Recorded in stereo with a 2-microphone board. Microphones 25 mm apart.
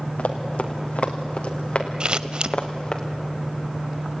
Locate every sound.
0.2 s running footsteps: 70° left (ahead or behind), 3 m; by 3.0 s 35° left (ahead or behind), 3 m
2.0 s scissors: 40° right (ahead or behind), 0.6 m